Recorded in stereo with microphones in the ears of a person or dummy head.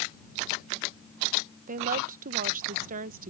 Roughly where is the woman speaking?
Right.